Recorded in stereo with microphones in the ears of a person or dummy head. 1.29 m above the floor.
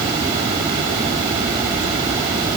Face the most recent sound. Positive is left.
No sound to turn to.